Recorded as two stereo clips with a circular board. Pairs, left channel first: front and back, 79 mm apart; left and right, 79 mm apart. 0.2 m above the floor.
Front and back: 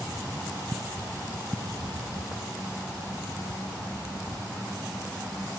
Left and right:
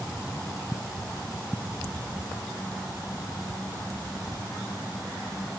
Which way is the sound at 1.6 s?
165° left.